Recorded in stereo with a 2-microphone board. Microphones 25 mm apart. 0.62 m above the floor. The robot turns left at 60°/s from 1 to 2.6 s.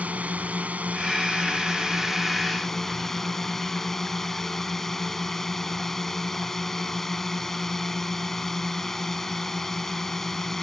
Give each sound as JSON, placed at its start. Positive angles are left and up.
{"t": 0.0, "sound": "a drone", "azimuth_deg": -95}